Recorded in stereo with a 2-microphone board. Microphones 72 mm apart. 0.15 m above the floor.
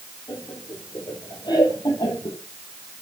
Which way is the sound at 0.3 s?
65° left (ahead or behind).